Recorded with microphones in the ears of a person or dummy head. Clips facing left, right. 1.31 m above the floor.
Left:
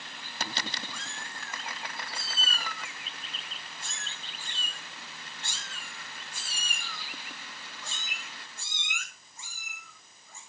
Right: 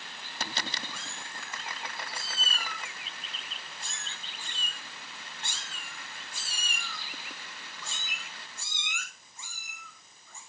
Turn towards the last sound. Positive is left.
turn(degrees=-75)  # may be behind; listen again after turning